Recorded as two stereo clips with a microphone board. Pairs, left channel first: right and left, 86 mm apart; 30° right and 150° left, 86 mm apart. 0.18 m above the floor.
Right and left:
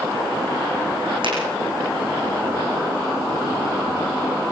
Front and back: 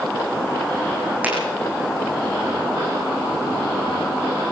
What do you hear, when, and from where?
1.2 s a finger snap: 80° left, 7 m